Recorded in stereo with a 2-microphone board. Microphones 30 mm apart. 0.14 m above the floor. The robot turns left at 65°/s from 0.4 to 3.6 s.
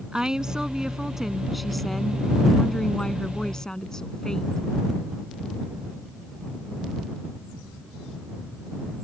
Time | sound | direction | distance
0.1 | a woman speaking | 25° right (ahead or behind) | ?